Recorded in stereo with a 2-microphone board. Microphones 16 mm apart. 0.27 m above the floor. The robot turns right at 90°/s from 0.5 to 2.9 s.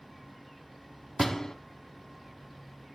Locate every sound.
1.2 s a door slam: 5° left, 1.2 m; by 1.6 s 35° left, 1.2 m